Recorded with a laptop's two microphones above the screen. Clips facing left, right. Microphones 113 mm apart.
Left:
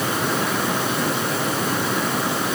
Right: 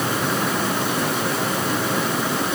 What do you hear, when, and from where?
Only background noise.